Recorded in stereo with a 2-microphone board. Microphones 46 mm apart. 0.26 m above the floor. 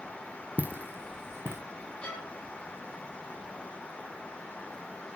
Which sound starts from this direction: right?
Footsteps, at 0.6 s.